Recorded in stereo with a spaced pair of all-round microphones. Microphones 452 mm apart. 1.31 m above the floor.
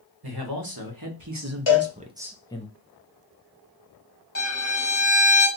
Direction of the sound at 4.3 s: 30° left (ahead or behind).